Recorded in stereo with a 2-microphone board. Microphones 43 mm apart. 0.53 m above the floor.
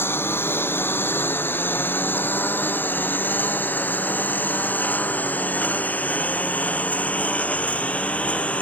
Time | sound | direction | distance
0.0 | a lawn mower | 65° left (ahead or behind) | ?